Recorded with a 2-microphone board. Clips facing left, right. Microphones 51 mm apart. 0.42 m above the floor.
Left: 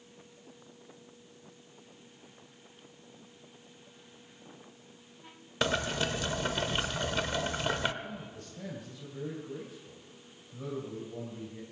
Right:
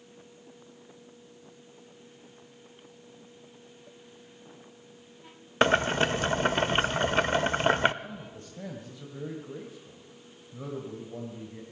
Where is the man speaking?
30° right (ahead or behind), 2.5 m.